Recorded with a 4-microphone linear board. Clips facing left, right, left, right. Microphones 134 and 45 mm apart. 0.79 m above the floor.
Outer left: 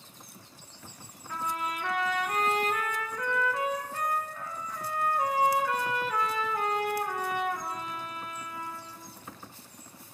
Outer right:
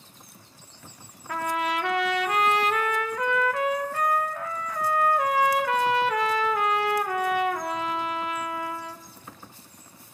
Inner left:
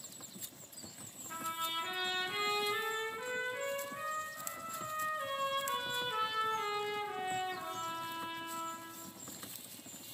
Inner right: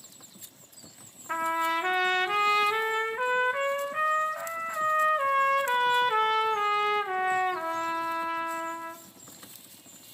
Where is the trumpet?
85° right, 0.5 m.